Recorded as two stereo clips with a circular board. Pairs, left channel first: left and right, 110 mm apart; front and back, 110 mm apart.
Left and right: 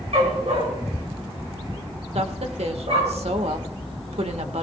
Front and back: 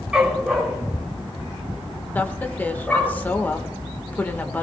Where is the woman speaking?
75° right, 1.7 m.